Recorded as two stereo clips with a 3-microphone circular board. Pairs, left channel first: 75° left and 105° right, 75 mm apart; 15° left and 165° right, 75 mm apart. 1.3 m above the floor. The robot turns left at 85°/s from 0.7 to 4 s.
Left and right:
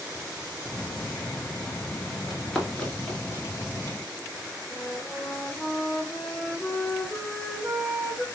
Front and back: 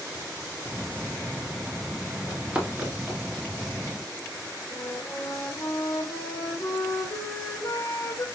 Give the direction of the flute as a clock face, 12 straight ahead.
12 o'clock.